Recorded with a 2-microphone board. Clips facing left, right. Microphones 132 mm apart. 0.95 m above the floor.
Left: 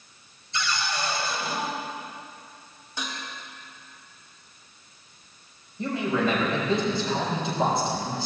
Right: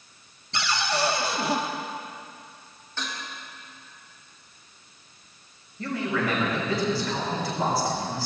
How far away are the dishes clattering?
About 3.5 m.